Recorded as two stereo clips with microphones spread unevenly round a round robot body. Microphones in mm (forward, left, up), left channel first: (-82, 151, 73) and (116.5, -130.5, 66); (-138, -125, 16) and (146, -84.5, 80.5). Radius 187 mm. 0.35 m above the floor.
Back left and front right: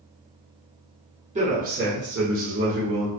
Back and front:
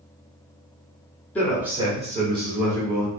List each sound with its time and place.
1.4 s a man speaking: 110° right, 1.3 m; by 3.1 s 20° right, 1.6 m